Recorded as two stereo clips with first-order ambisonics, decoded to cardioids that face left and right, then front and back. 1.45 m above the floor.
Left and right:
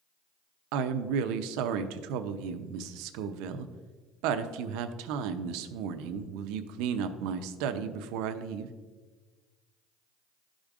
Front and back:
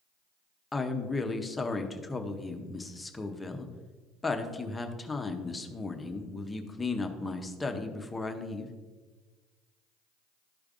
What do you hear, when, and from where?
0.7 s a woman speaking: 80° right, 0.6 m